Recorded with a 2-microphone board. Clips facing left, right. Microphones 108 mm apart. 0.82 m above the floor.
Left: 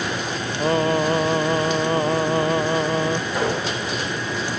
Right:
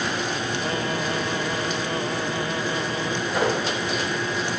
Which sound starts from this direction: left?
Singing, at 0.6 s.